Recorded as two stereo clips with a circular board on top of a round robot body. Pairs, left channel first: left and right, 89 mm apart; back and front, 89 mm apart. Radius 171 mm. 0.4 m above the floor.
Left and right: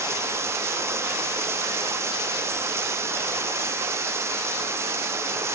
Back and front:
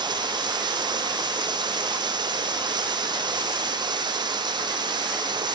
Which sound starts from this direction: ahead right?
Running water, at 0.0 s.